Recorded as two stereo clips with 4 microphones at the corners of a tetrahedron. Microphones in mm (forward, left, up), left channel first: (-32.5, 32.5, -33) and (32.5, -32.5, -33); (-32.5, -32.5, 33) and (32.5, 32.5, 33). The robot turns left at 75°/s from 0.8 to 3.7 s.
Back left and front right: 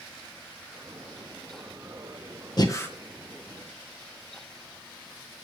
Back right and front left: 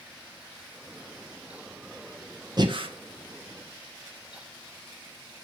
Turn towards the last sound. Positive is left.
turn(degrees=5)